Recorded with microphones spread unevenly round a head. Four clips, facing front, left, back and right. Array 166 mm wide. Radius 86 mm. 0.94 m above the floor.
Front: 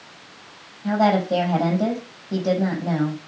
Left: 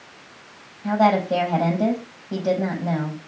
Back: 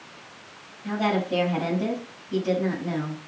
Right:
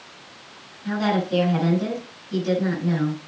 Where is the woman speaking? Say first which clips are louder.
Left 5 dB, front 6 dB; 50° left, 5 m.